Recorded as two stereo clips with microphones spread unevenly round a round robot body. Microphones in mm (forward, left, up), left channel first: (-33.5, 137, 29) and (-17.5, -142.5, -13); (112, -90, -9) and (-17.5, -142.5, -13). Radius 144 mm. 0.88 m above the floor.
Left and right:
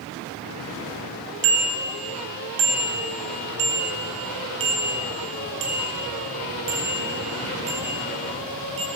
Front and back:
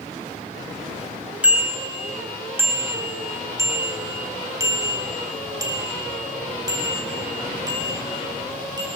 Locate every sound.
1.4 s a bicycle bell: 75° right, 3.5 m; by 8.8 s 100° right, 7 m